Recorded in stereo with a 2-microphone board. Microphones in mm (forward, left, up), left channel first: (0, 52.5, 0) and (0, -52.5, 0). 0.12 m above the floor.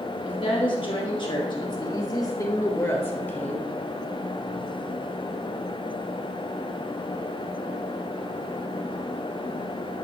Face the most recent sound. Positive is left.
turn(degrees=15)  # may be behind; listen again after turning